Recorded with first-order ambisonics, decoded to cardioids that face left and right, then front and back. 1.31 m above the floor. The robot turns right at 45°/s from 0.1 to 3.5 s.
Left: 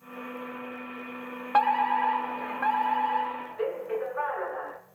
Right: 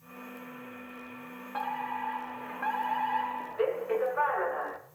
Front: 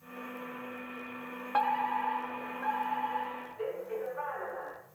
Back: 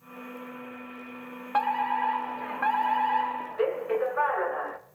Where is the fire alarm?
105° left, 1.3 m; by 4.8 s 170° right, 1.3 m.